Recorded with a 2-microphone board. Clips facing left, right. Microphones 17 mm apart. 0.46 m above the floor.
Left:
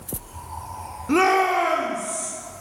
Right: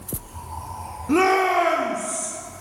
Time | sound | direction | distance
1.1 | a shout | 15° left (ahead or behind) | 0.7 m